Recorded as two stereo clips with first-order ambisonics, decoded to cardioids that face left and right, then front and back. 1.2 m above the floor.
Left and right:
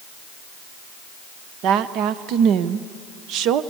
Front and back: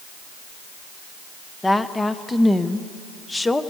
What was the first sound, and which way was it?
A woman speaking, 75° right.